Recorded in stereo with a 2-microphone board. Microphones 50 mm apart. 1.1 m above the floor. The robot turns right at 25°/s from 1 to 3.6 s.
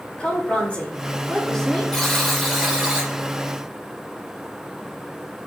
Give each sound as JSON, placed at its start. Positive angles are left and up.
{"t": 0.2, "sound": "a woman speaking", "side_deg": 25, "distance_m": 2.5}
{"t": 1.9, "sound": "a buzzer", "side_deg": 10, "distance_m": 3.5}